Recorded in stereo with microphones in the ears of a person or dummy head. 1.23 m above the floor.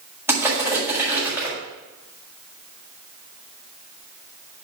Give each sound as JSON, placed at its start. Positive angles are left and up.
{"t": 0.3, "sound": "crushing", "side_deg": -10, "distance_m": 6.5}